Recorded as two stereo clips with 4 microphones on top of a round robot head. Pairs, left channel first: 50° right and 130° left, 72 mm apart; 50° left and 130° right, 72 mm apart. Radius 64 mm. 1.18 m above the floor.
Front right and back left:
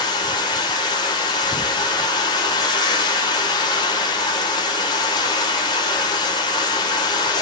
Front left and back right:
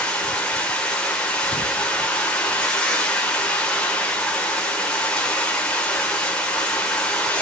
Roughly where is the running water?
Ahead right.